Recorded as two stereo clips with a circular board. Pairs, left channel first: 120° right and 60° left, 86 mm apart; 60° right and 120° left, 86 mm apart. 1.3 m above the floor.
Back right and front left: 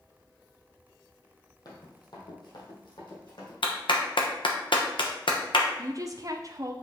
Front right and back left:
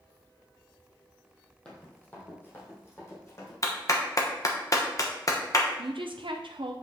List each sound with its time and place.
1.6 s running footsteps: 140° right, 2 m; by 3.5 s 110° right, 3.5 m
3.6 s a clap: 110° right, 1.0 m
5.8 s a woman speaking: 105° left, 0.5 m